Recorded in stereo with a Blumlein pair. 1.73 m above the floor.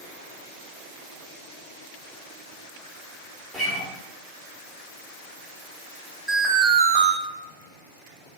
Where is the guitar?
15° right, 1.1 m.